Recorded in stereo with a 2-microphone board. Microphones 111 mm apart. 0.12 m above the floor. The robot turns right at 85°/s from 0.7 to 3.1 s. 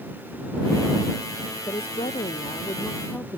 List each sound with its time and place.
1.7 s a woman speaking: 40° left; by 3.4 s 160° left